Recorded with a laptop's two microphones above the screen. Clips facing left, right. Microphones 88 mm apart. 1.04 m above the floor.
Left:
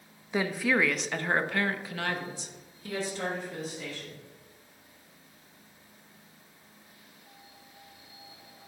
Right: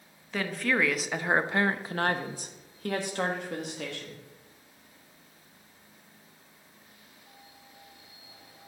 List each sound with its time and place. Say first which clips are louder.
0.3 s a woman speaking: left 2 dB; 15° left (ahead or behind), 0.9 m; by 4.2 s 80° right, 1.7 m